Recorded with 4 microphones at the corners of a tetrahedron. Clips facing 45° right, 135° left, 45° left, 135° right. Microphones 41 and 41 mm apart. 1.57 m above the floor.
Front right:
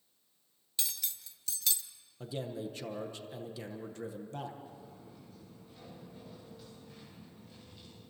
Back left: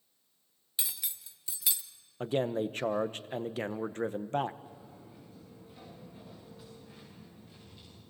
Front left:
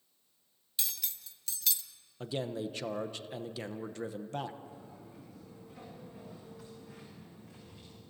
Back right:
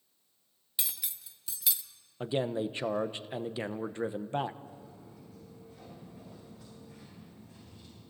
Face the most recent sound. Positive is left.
turn(degrees=45)